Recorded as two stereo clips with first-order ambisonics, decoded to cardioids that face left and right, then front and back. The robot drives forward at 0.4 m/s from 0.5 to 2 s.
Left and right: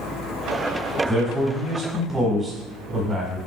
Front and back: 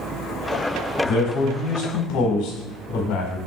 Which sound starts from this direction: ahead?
A man speaking, at 1.0 s.